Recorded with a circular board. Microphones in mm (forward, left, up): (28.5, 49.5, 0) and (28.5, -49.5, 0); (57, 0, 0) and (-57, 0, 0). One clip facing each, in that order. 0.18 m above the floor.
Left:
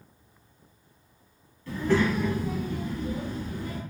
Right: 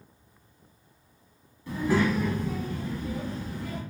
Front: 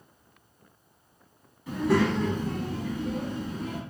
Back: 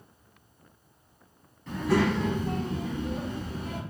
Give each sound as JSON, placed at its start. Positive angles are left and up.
{"t": 1.7, "sound": "a child speaking", "azimuth_deg": -70, "distance_m": 0.8}